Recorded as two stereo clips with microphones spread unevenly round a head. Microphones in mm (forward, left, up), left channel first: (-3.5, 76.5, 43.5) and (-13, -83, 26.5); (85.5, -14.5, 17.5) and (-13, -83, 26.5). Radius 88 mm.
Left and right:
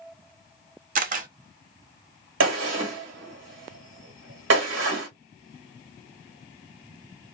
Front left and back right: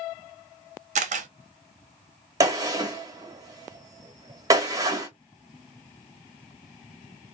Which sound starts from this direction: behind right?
A camera shutter, at 0.9 s.